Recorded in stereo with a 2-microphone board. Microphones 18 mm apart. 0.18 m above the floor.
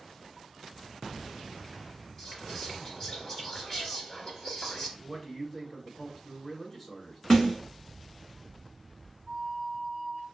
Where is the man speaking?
25° left (ahead or behind), 1.5 m.